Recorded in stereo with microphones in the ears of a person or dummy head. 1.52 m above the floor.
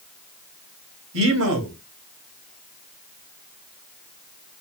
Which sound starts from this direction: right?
A man speaking, at 1.1 s.